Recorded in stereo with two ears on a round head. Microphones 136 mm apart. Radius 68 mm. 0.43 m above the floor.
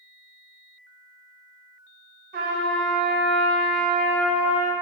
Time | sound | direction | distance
2.3 | a trumpet | 60° right (ahead or behind) | 0.6 m